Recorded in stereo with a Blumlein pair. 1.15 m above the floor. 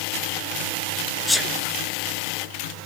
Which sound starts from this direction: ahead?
A sneeze, at 1.3 s.